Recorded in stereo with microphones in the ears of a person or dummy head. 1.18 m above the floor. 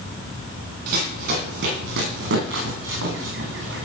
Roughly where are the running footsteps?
Right.